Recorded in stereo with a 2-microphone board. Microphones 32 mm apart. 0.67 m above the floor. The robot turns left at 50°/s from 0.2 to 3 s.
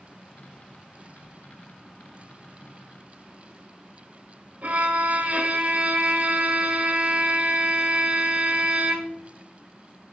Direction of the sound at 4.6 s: 65° right (ahead or behind).